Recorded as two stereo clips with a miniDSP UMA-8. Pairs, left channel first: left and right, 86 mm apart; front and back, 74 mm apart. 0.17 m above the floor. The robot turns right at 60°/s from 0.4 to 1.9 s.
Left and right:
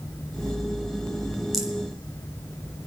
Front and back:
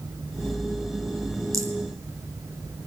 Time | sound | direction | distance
1.5 | a rattle | straight behind | 1.6 m